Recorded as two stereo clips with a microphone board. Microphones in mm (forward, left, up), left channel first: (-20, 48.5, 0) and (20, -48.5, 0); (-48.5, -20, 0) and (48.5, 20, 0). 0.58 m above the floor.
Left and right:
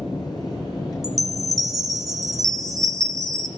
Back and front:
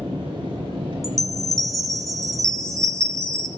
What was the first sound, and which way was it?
An engine running, 65° left.